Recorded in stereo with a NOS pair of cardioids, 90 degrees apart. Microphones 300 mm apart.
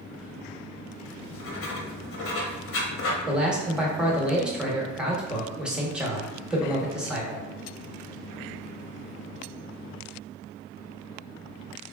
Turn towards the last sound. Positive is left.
turn(degrees=-5)